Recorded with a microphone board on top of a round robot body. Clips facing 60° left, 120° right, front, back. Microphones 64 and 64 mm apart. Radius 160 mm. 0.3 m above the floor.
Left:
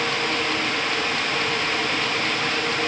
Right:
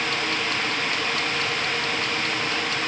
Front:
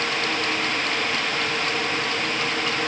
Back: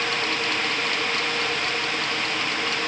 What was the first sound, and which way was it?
Only background noise.